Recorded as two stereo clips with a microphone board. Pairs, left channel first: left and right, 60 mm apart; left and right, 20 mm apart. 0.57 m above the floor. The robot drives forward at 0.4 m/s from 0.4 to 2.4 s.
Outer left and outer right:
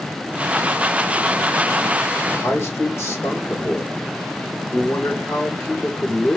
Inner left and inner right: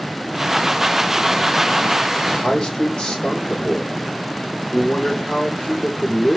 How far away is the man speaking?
About 1.1 m.